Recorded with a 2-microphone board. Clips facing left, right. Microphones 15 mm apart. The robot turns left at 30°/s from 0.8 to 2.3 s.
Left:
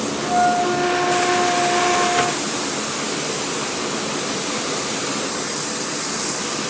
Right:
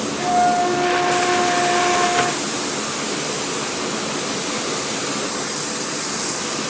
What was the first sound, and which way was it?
A flute, 135° right.